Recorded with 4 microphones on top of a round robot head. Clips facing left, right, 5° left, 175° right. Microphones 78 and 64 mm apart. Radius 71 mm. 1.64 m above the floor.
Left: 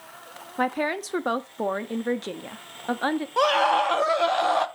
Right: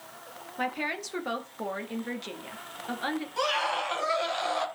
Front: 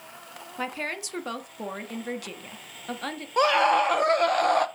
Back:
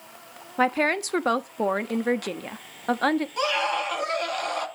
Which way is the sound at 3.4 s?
50° left.